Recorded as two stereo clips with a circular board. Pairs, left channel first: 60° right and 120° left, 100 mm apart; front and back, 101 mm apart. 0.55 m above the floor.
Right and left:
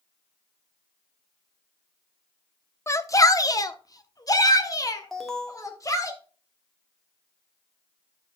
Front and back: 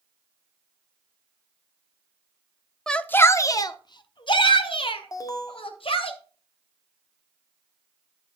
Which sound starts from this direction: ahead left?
An alarm, at 5.1 s.